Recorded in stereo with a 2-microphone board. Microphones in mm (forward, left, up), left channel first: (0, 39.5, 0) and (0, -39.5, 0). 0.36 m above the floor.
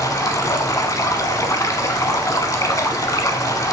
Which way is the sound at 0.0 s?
45° left (ahead or behind).